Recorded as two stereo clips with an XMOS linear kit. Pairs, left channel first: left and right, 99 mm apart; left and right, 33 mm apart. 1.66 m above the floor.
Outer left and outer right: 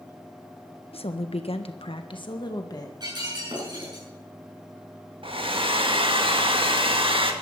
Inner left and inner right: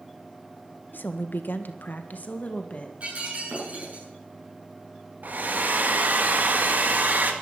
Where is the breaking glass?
45° right (ahead or behind), 8 m.